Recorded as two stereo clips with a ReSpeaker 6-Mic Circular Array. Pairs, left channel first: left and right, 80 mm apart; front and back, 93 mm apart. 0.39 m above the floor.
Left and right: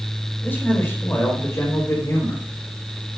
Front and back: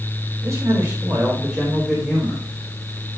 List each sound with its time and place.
0.4 s a man speaking: 145° left, 1.9 m; by 2.4 s 75° left, 2.0 m